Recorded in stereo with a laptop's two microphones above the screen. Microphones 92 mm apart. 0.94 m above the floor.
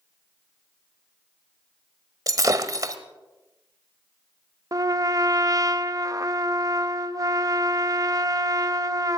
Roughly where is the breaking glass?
Right.